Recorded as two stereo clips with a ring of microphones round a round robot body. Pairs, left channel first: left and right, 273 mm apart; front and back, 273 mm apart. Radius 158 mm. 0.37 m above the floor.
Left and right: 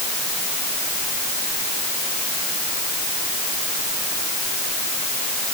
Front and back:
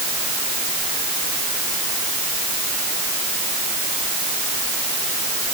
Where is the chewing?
I don't hear chewing.